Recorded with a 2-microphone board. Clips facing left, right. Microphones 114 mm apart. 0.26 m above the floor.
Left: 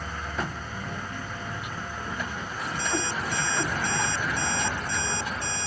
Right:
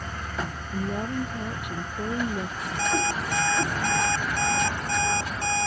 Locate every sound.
0.7 s a woman speaking: 60° right (ahead or behind)
2.8 s an alarm clock: 65° right (ahead or behind)